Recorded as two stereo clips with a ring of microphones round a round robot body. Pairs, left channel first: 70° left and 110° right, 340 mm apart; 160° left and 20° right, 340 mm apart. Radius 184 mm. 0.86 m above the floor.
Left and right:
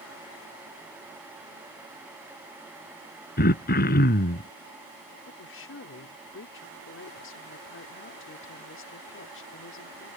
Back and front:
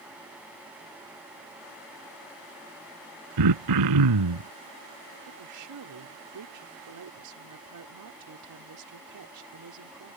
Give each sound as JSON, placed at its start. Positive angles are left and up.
{"t": 3.4, "sound": "throat clearing", "azimuth_deg": 5}
{"t": 5.2, "sound": "a woman speaking", "azimuth_deg": 15}